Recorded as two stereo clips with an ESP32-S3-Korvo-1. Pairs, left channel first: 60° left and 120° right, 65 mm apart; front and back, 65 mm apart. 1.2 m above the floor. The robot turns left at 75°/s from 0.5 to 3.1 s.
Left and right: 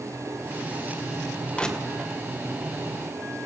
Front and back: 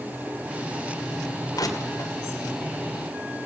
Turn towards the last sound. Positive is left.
turn(degrees=-125)